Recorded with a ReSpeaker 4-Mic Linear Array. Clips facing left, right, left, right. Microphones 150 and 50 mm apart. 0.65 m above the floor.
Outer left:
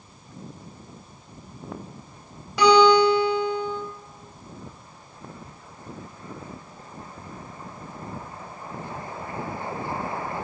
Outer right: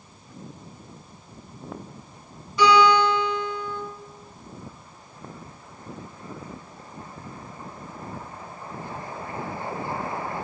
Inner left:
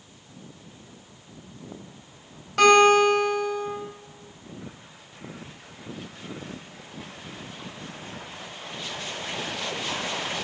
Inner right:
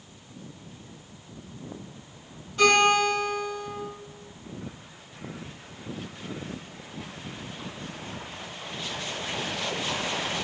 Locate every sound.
2.6 s a guitar: 80° left, 2.5 m